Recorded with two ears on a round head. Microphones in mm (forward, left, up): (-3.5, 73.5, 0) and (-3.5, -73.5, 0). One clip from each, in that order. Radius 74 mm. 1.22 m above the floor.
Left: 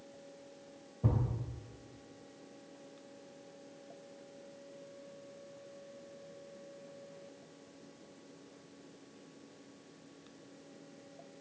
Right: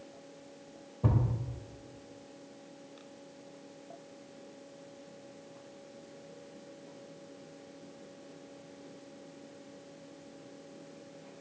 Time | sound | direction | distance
1.0 | a thud | 40° right (ahead or behind) | 2.5 m